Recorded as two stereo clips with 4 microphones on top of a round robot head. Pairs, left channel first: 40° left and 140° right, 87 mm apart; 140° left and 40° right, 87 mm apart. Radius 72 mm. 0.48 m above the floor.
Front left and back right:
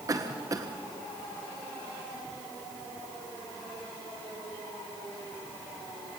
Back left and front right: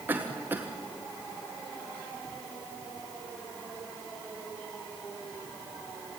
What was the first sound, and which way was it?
A cough, 105° right.